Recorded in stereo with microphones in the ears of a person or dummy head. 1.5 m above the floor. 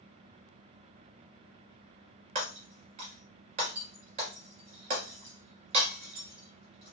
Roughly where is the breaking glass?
Right.